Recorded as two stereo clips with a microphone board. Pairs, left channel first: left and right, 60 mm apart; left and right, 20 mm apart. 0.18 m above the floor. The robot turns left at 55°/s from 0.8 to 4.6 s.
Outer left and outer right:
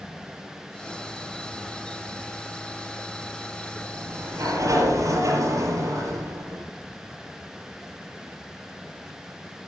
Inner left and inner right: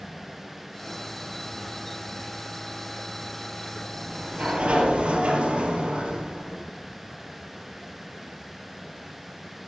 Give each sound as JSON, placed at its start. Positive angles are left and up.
{"t": 3.9, "sound": "a sliding door", "azimuth_deg": -45, "distance_m": 4.0}